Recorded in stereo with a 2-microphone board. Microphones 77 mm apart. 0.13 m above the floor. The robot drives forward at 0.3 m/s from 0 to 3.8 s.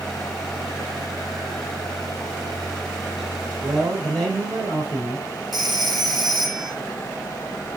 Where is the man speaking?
5° left (ahead or behind), 2.5 m.